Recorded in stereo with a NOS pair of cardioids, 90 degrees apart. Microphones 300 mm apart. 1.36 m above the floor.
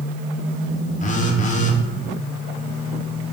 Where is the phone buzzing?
25° left, 0.5 m.